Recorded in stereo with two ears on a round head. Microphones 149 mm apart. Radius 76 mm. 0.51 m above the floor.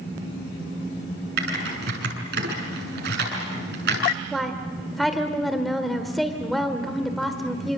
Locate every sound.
1.4 s typing on a keyboard: 75° right (ahead or behind), 7 m
4.3 s a woman speaking: centre (ahead or behind), 1.6 m